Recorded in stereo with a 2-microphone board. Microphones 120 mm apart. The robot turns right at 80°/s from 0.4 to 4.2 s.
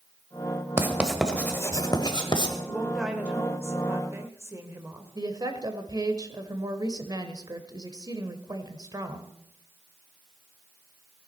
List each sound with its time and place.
0.8 s writing: 20° right (ahead or behind), 1.3 m; by 2.6 s 35° left (ahead or behind), 1.3 m
2.6 s a woman speaking: 5° left (ahead or behind), 1.2 m; by 5.1 s 20° right (ahead or behind), 1.2 m
5.2 s a woman speaking: 30° right (ahead or behind), 1.0 m